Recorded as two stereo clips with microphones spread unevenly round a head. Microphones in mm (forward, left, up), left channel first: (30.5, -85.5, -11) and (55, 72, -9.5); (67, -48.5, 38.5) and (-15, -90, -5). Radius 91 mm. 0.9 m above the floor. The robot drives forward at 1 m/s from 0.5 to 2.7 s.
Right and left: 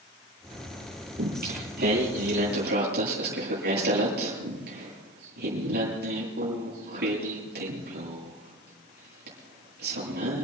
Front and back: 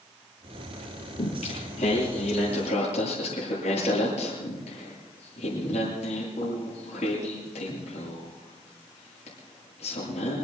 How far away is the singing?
About 10 m.